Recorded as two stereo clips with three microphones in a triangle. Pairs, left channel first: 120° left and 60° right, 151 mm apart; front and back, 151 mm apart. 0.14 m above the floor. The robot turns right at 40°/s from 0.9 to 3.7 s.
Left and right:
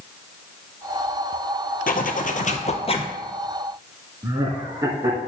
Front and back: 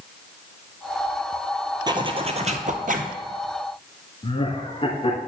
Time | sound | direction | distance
1.9 | a zipper | 120° left | 0.8 m
4.2 | laughter | 10° right | 1.4 m